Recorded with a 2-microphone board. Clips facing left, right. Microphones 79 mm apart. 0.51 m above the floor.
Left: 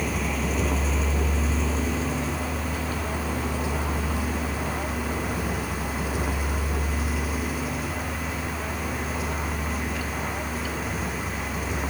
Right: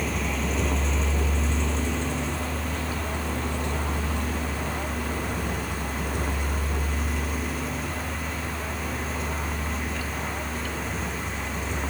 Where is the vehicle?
5° left (ahead or behind).